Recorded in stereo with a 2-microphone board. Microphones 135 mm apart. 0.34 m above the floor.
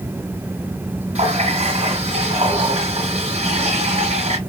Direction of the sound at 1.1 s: 60° right (ahead or behind).